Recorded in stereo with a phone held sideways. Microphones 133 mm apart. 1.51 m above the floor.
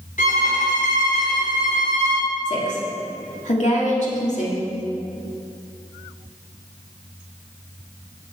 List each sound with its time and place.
0.2 s a violin: 80° left, 4 m
2.5 s a woman speaking: 60° left (ahead or behind), 2.5 m